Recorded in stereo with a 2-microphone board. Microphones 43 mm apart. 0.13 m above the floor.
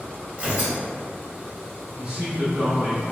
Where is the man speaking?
30° right (ahead or behind), 1.8 m.